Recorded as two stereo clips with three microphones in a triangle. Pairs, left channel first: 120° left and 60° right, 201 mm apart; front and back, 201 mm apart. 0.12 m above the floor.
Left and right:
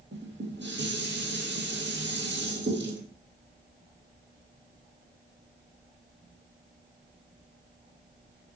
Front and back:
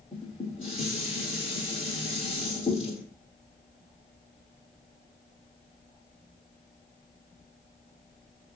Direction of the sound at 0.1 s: 55° right.